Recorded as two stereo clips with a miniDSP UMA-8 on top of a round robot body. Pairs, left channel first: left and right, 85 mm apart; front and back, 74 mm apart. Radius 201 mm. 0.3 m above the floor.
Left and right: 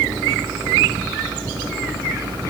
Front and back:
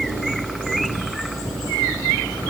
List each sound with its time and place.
Only background noise.